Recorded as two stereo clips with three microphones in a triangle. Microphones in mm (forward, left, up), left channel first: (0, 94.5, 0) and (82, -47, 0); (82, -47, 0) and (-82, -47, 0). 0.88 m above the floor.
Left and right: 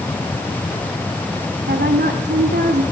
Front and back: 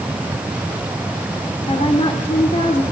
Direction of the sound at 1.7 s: 60° right.